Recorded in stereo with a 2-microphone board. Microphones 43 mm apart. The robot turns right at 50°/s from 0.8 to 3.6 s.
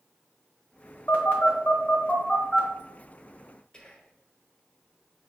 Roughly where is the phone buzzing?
Left.